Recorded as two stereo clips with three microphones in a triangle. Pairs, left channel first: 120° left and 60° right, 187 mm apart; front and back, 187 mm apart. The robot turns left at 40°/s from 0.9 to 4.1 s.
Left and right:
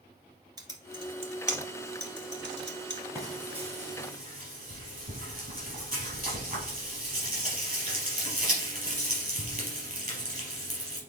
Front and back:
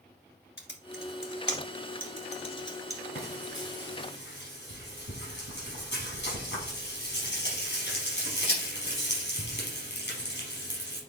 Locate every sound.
0.6 s typing on a keyboard: 10° left, 1.7 m; by 3.0 s 75° right, 1.7 m
3.1 s frying: 15° left, 3.5 m; by 11.0 s 20° right, 3.5 m